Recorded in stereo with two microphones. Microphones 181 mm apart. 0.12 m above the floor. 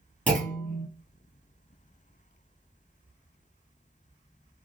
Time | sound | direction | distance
0.3 | a clunk | 5° left (ahead or behind) | 1.6 m